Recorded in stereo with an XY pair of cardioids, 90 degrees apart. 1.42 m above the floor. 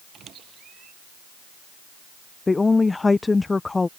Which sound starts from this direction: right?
A squeak, at 0.1 s.